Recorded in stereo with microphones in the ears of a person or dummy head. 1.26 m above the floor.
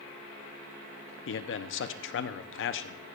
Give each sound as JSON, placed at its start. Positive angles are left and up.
{"t": 1.3, "sound": "a man speaking", "side_deg": 60, "distance_m": 0.5}